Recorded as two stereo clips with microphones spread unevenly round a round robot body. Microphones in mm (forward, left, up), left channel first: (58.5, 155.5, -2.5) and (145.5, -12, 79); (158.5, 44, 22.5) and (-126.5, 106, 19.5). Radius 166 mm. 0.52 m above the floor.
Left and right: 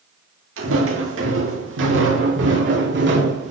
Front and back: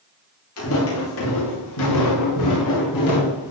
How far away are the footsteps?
About 7 m.